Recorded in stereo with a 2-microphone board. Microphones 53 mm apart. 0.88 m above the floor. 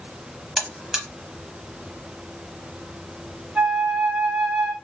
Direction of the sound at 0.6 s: 10° right (ahead or behind).